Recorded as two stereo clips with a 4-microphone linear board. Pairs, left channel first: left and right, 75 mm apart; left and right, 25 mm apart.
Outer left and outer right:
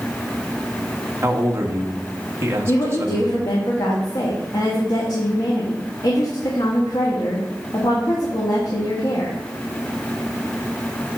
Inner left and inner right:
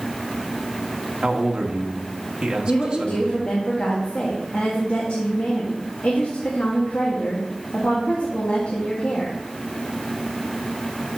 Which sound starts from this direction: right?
A man speaking, at 1.2 s.